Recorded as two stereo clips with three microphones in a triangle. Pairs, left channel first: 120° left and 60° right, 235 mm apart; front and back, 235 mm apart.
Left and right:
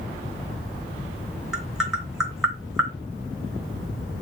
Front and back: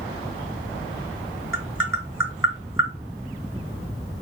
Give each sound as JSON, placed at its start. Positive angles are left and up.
{"t": 1.5, "sound": "tapping", "azimuth_deg": 30, "distance_m": 1.3}